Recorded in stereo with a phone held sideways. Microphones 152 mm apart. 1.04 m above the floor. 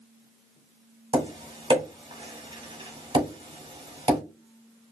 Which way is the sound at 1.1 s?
35° right (ahead or behind).